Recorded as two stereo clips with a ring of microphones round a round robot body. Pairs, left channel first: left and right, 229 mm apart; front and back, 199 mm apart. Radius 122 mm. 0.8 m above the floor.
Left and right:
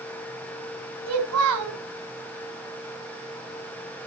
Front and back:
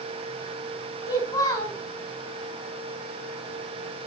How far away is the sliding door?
No sliding door in this recording.